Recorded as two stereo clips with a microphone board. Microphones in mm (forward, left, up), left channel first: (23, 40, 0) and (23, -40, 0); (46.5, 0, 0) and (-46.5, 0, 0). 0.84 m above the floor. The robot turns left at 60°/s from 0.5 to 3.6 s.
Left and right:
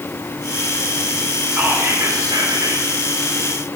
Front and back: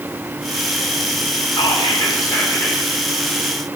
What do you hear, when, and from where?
1.5 s whispering: 5° right, 2 m; by 2.8 s 85° right, 2 m